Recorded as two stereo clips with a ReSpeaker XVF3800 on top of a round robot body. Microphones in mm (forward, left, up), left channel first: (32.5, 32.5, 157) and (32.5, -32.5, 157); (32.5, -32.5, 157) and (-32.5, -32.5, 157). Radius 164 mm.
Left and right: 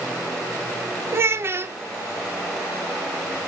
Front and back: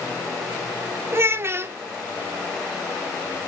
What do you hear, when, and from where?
1.1 s a child speaking: 135° right, 0.5 m